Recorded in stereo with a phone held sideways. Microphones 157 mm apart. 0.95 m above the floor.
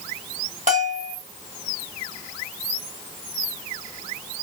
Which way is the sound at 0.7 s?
50° right (ahead or behind).